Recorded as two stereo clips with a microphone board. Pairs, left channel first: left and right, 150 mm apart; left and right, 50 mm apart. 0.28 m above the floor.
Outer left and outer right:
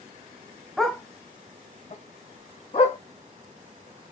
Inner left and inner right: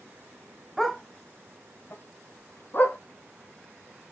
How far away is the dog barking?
About 0.7 m.